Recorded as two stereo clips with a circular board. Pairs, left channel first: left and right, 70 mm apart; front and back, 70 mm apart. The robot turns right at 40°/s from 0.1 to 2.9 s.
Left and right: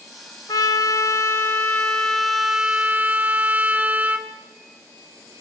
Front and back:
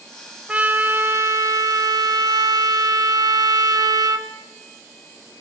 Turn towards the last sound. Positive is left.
turn(degrees=-155)